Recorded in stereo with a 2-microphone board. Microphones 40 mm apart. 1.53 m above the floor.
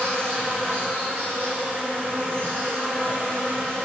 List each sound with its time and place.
0.0 s an insect: 65° right (ahead or behind), 4 m